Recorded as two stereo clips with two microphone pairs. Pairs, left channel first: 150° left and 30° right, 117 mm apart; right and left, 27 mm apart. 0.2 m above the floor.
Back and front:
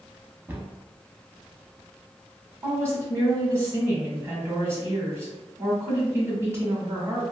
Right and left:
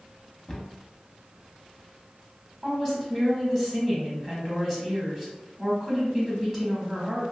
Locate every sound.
0.5 s a cupboard door: 65° right, 0.6 m
2.6 s a woman speaking: 15° right, 1.3 m